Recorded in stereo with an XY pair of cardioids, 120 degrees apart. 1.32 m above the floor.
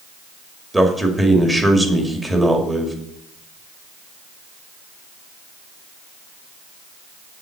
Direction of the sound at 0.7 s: 10° right.